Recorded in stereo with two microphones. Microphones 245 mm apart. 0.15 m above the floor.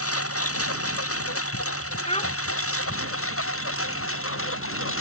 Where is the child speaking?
25° left (ahead or behind).